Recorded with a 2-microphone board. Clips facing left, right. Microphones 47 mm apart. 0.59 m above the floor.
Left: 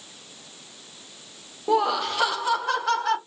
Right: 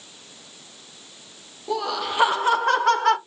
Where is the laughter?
35° left (ahead or behind), 0.7 m; by 3.2 s 60° right (ahead or behind), 1.6 m.